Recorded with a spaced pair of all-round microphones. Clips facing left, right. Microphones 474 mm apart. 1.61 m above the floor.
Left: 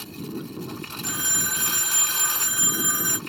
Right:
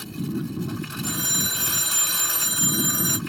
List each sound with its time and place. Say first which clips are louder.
0.0 s a lawn mower: right 5 dB; 35° right (ahead or behind)
1.0 s a phone ringing: right 4 dB; 60° right (ahead or behind)